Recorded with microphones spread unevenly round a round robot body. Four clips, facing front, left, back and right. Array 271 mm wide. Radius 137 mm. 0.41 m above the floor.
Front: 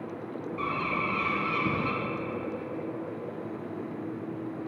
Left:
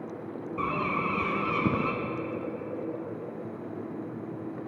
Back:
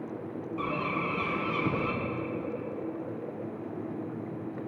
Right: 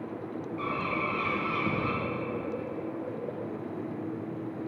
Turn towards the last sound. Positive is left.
turn(degrees=95)